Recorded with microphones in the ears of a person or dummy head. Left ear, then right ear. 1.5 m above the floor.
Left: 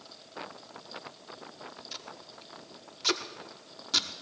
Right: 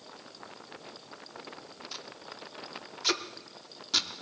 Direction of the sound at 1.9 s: Centre (ahead or behind).